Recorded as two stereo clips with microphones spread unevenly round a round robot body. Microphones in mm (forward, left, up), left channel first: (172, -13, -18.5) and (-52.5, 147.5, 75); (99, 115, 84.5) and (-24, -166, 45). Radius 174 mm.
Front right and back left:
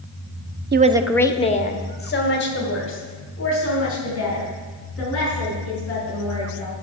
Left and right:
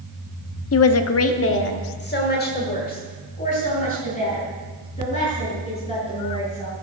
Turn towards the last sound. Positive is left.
turn(degrees=-5)